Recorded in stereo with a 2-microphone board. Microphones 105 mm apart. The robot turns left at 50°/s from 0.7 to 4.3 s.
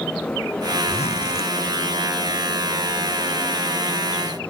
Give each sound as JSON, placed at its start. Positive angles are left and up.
{"t": 0.9, "sound": "a zipper", "azimuth_deg": 95}